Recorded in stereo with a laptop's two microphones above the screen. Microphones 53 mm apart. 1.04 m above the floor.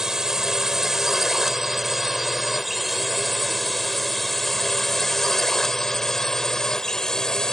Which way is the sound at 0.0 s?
5° right (ahead or behind).